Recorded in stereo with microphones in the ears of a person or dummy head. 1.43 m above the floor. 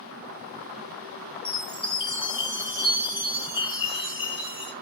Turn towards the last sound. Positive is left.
turn(degrees=30)  # may be behind; listen again after turning